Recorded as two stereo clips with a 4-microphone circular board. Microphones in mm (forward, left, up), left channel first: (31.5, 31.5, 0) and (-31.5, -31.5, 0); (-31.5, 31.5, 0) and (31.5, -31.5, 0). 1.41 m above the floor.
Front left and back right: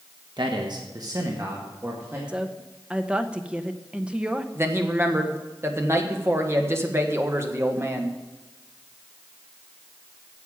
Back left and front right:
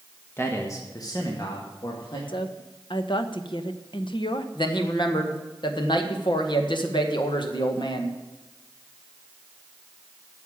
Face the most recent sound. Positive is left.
turn(degrees=165)